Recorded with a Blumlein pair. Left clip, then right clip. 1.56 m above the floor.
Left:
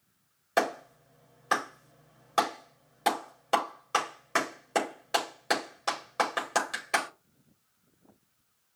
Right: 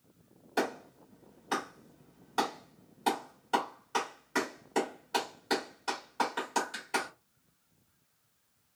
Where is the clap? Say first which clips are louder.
Left 5 dB; 40° left, 4.5 m.